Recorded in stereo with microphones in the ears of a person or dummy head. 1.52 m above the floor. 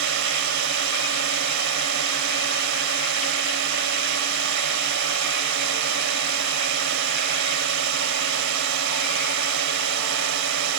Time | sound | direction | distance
0.0 | a drone | 70° right (ahead or behind) | ?